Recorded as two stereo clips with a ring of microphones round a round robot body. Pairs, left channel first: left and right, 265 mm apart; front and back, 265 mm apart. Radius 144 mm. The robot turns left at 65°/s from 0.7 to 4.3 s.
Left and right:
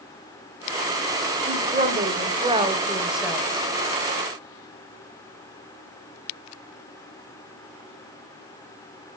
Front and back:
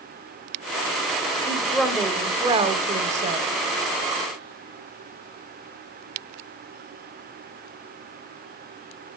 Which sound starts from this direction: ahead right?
A woman speaking, at 1.5 s.